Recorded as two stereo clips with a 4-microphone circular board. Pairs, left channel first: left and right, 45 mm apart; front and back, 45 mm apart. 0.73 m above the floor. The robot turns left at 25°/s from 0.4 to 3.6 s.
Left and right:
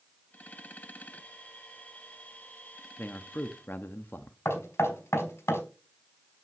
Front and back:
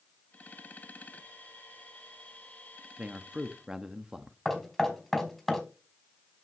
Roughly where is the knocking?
Left.